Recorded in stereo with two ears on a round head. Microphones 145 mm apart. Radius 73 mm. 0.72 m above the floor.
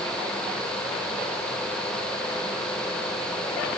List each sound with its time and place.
Only background noise.